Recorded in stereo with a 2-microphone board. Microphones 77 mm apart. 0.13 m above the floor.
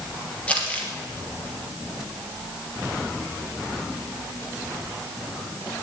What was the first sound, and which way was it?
Crumpling, 15° left (ahead or behind).